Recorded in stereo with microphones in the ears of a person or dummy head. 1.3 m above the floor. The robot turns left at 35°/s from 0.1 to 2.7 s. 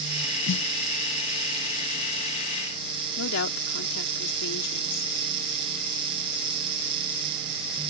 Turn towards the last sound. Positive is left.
turn(degrees=75)  # may be behind; listen again after turning